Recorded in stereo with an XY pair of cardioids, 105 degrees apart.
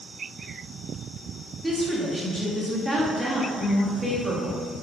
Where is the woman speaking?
10° right, 2.5 m.